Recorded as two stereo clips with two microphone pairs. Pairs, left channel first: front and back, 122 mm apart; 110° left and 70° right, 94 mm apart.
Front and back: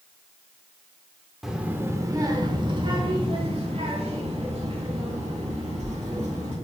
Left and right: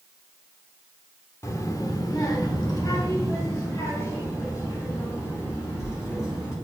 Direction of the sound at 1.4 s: 95° left.